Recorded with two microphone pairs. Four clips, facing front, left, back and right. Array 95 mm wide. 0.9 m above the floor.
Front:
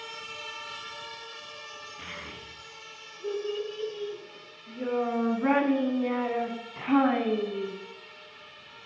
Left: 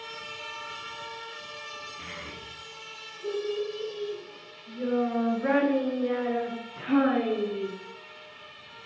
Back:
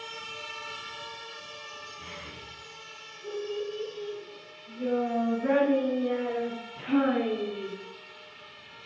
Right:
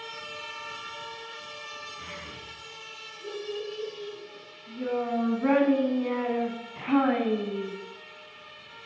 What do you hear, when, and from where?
2.0 s a child speaking: 5° left, 8 m; by 7.7 s 35° right, 5 m